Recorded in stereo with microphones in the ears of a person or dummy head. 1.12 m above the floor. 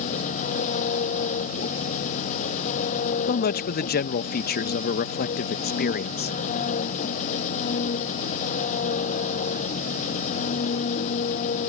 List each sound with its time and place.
0.0 s an engine running: 40° left (ahead or behind)
3.3 s a man speaking: 40° left (ahead or behind)